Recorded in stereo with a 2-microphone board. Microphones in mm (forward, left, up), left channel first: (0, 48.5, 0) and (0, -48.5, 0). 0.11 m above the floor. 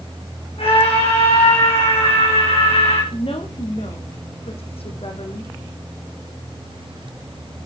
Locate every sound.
0.6 s a scream: 75° left (ahead or behind), 7 m; by 3.0 s 80° left, 9.5 m
3.1 s a woman speaking: 75° left (ahead or behind), 5 m